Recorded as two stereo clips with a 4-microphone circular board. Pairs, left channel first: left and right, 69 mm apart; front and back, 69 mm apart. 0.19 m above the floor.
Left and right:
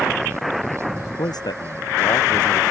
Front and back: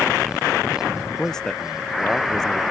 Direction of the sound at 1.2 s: 80° left.